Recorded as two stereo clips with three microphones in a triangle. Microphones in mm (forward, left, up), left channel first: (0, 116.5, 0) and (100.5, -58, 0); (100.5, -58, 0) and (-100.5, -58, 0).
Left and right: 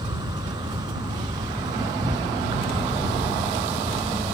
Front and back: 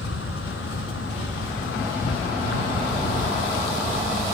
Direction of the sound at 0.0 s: 10° left.